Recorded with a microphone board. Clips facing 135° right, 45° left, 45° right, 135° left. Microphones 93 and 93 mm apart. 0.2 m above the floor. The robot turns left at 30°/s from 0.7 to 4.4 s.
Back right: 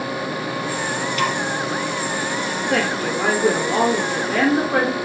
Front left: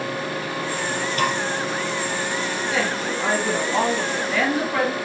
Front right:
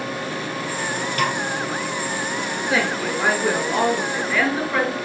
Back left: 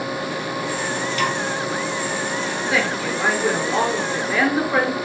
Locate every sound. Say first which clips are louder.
1.2 s a snare drum: even, front right 1 dB; 5° right, 3 m; by 1.4 s 10° right, 3 m
2.7 s a woman speaking: back right 5 dB, front right 1 dB; 110° right, 3.5 m; by 4.9 s 160° right, 3.5 m